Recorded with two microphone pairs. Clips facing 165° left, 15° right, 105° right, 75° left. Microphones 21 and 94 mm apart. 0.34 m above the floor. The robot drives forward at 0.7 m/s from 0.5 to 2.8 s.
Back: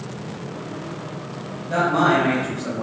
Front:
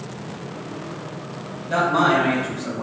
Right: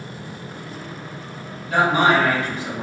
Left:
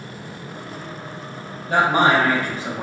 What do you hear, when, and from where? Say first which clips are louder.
1.7 s a man speaking: even, even; 60° left, 1.2 m; by 2.8 s 115° left, 1.2 m